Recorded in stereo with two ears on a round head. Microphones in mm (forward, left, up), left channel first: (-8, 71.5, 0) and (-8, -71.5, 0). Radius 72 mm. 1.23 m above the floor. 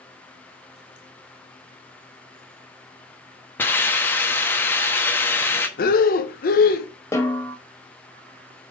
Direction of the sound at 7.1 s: 15° left (ahead or behind).